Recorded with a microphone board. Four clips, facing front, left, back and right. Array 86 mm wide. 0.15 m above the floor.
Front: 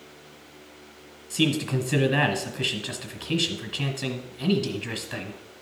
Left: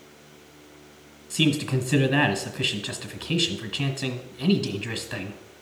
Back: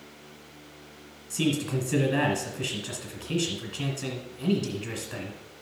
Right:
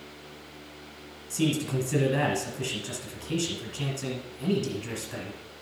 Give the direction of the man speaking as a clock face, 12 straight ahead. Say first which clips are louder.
Left 3 dB, front 2 dB; 10 o'clock.